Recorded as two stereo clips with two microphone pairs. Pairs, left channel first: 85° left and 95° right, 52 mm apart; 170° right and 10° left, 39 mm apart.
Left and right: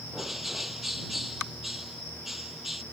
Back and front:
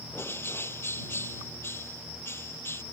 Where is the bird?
Straight behind.